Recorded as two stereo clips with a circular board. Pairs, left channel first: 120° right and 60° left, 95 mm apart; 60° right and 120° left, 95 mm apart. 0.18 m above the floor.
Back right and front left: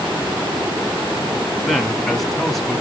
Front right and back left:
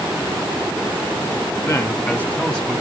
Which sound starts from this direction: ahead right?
A man speaking, at 1.6 s.